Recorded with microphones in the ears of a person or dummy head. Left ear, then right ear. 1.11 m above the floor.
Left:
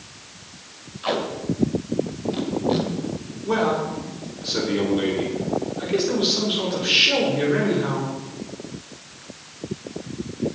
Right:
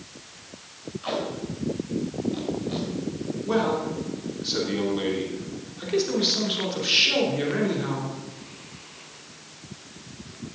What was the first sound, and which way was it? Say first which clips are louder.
Tape being pulled: left 5 dB; 15° left (ahead or behind).